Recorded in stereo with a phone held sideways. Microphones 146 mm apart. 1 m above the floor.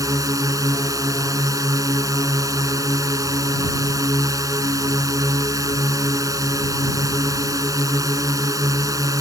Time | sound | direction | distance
0.0 | a drone | 20° right (ahead or behind) | ?